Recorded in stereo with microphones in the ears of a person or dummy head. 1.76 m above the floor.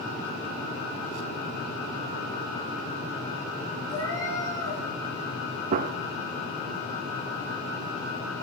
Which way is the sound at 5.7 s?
40° right (ahead or behind).